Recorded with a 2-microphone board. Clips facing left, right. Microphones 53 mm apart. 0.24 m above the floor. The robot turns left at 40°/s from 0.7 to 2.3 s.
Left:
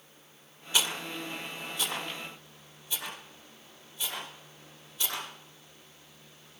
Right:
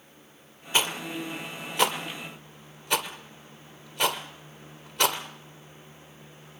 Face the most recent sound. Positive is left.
turn(degrees=-75)  # may be behind; listen again after turning